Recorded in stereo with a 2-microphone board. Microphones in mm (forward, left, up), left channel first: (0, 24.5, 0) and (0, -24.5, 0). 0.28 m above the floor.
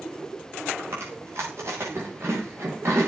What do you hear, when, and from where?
0.8 s chewing: 55° right (ahead or behind), 9 m